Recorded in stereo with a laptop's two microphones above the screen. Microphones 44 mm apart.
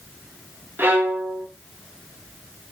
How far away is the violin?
About 1.1 m.